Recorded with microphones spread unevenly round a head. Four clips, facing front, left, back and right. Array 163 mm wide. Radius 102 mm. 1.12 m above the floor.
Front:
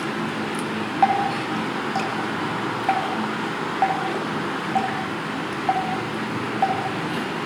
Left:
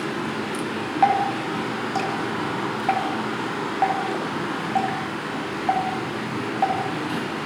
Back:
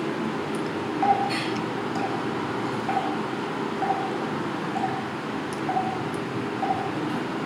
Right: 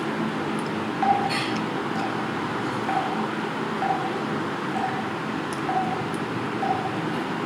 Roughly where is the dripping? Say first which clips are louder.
Left 3 dB, front 3 dB; ahead left.